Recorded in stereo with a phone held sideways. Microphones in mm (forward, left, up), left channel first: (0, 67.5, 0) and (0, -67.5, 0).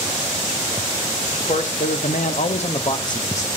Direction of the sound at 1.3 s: 55° left (ahead or behind).